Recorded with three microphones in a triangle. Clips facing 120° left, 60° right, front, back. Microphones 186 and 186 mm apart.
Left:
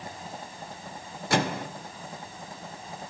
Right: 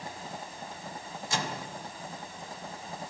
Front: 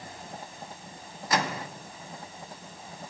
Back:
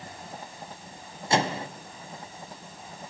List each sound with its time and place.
1.3 s a microwave: 120° left, 0.7 m